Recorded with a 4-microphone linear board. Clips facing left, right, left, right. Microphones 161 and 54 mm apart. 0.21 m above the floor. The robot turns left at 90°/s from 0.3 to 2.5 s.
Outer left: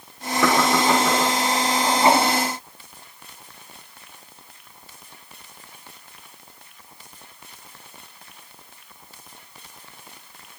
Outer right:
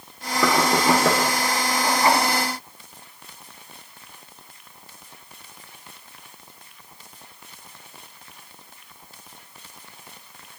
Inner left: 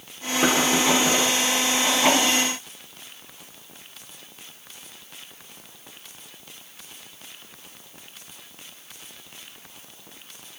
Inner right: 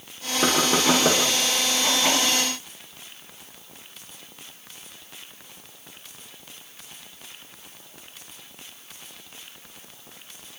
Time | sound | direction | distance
0.4 | knocking | straight ahead | 7 m